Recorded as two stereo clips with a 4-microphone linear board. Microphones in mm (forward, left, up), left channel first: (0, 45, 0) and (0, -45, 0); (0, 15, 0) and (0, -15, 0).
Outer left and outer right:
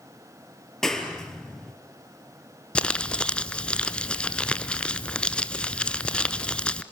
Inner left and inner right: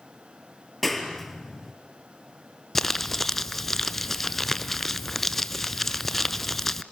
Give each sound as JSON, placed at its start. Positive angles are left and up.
{"t": 0.8, "sound": "a clap", "side_deg": 5, "distance_m": 2.5}
{"t": 2.8, "sound": "crumpling", "side_deg": 10, "distance_m": 0.8}